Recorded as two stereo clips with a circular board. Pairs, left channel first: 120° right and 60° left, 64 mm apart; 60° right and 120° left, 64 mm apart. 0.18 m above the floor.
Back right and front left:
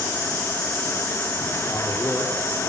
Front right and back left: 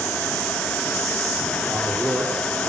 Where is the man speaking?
175° right, 6 m.